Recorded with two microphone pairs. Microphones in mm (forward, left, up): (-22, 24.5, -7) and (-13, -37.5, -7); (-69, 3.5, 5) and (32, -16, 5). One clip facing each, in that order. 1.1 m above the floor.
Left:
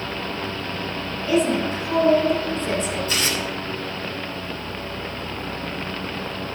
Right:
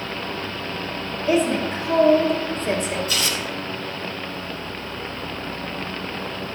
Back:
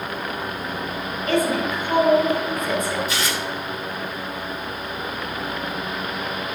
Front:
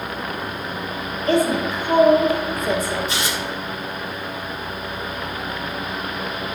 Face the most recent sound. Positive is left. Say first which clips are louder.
# left 1 dB, even
turn(degrees=55)